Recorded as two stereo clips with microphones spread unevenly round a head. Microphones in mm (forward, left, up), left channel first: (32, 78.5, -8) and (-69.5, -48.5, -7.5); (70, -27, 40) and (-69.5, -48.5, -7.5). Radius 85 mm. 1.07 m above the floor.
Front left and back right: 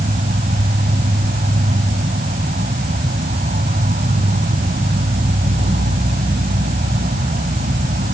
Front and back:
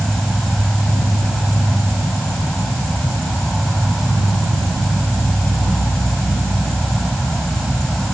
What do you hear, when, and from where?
0.0 s an insect: 80° right